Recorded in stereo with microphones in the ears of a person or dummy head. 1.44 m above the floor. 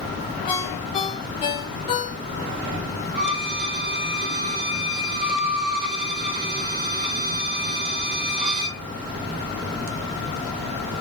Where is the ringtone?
30° left (ahead or behind), 0.9 m.